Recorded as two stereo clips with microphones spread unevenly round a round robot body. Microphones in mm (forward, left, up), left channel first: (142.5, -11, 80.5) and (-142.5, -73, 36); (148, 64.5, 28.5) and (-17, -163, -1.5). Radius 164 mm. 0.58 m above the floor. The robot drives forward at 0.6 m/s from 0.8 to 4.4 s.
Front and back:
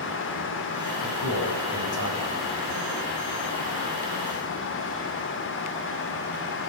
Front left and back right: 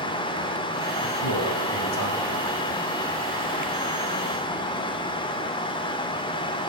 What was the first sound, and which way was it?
A man speaking, 40° left.